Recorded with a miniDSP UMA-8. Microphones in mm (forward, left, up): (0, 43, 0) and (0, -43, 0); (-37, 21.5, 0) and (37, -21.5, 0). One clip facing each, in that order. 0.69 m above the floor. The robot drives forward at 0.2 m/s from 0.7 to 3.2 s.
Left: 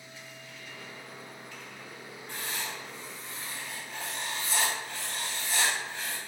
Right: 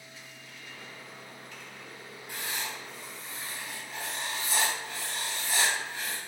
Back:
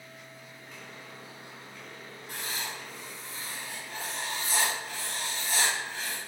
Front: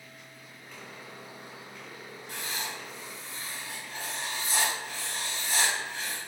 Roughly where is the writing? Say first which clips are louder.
Right 1 dB, even; behind.